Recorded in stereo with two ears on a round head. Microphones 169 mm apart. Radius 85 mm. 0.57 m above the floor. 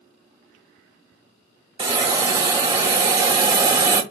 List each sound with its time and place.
1.8 s a hiss: 25° right (ahead or behind), 0.6 m